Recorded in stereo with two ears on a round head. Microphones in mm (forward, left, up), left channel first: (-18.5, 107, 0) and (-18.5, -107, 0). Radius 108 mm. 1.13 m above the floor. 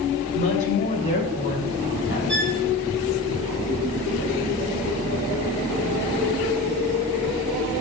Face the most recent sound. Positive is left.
turn(degrees=5)  # may be behind; listen again after turning